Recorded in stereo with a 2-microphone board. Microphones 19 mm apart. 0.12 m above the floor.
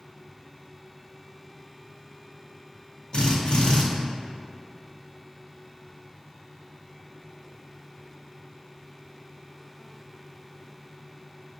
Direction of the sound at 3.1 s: 55° left (ahead or behind).